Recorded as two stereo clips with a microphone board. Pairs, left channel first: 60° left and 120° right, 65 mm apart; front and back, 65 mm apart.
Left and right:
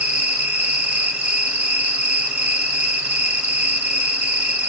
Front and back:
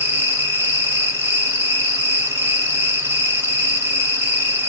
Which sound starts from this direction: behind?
An insect, at 0.0 s.